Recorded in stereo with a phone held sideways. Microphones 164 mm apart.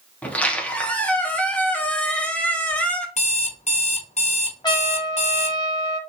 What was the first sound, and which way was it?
A squeak, 10° left (ahead or behind).